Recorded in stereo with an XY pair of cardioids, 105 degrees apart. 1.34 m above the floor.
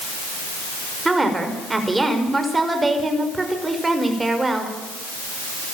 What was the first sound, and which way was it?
A woman speaking, 20° right.